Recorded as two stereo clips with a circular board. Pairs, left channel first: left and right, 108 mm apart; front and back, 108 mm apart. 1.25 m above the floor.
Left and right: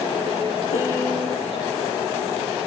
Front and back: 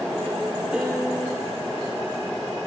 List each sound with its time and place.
0.7 s a piano: 100° left, 3.5 m